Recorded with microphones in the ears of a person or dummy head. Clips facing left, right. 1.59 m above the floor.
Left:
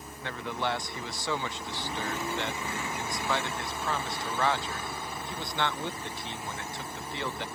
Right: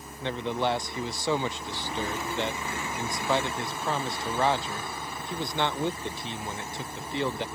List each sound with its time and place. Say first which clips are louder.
0.2 s a man speaking: right 5 dB; 20° right (ahead or behind)